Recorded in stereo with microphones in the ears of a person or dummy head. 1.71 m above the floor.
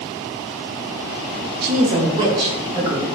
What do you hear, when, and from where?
1.6 s a woman speaking: 60° right (ahead or behind), 0.6 m; by 3.1 s 20° right (ahead or behind), 2.5 m